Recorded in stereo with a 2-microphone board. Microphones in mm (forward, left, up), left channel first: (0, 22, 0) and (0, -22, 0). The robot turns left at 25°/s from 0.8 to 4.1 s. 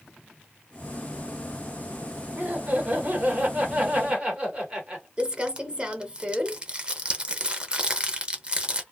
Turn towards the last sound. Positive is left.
turn(degrees=-25)  # may be behind; listen again after turning